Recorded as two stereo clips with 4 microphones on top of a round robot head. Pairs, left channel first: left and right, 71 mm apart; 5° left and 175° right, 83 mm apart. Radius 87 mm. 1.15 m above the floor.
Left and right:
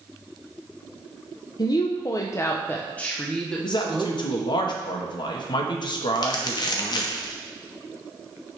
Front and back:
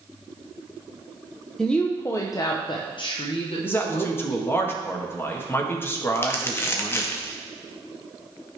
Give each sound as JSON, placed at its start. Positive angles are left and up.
{"t": 1.6, "sound": "a woman speaking", "azimuth_deg": 90, "distance_m": 0.8}
{"t": 3.6, "sound": "a man speaking", "azimuth_deg": 70, "distance_m": 1.3}
{"t": 6.2, "sound": "crumpling", "azimuth_deg": 65, "distance_m": 0.7}